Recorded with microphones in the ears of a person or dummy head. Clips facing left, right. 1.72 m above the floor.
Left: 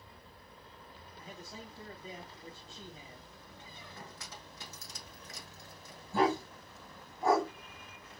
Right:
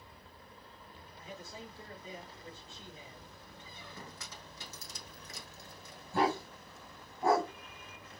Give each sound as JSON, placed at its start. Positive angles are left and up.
{"t": 1.2, "sound": "a man speaking", "side_deg": 35, "distance_m": 1.8}
{"t": 3.6, "sound": "a squeak", "side_deg": -70, "distance_m": 1.9}
{"t": 6.1, "sound": "a dog barking", "side_deg": 5, "distance_m": 3.5}